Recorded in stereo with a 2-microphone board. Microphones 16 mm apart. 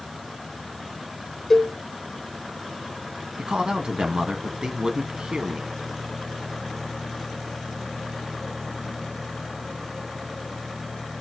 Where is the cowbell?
25° left (ahead or behind), 1.9 m.